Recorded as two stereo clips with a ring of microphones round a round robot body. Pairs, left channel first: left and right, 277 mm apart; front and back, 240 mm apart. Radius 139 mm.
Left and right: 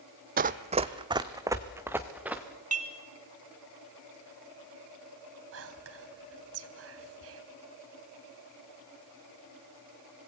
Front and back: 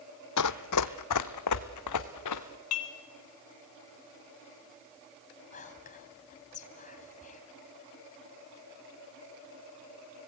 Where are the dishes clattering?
25° right, 2 m.